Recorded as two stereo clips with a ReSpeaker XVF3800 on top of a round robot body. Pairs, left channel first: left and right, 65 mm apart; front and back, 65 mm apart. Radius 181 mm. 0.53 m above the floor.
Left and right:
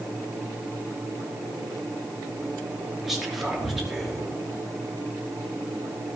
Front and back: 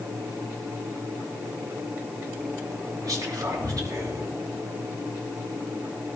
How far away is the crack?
No crack in this recording.